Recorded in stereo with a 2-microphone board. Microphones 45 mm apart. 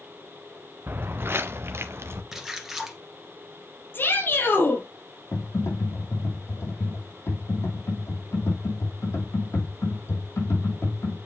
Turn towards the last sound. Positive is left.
turn(degrees=70)  # may be behind; listen again after turning